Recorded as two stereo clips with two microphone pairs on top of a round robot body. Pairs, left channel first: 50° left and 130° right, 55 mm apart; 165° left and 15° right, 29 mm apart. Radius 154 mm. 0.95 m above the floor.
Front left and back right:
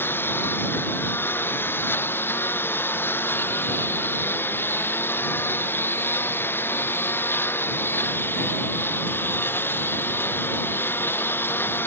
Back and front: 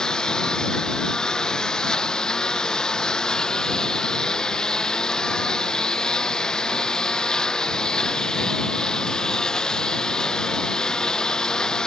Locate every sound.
0.0 s a lawn mower: 100° left